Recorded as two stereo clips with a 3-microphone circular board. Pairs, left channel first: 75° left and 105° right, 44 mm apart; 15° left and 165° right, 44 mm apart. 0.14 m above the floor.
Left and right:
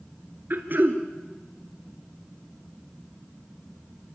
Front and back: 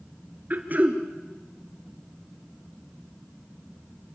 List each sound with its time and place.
0.5 s throat clearing: 125° right, 1.7 m